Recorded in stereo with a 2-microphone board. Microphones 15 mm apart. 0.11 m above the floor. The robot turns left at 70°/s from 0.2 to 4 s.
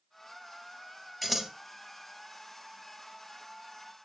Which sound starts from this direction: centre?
Scissors, at 1.2 s.